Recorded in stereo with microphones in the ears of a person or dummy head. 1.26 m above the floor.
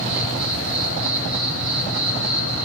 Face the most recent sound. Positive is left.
turn(degrees=50)  # may be behind; listen again after turning